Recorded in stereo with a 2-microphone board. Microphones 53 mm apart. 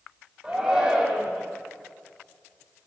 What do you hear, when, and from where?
0.4 s a shout: 15° right (ahead or behind), 4.5 m